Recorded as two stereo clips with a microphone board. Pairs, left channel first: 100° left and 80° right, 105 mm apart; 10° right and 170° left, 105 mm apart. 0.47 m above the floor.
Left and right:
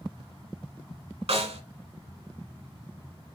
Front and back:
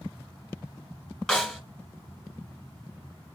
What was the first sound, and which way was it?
A snare drum, 100° right.